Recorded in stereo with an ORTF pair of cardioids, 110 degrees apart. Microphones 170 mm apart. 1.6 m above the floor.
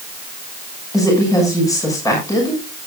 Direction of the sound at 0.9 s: 20° left.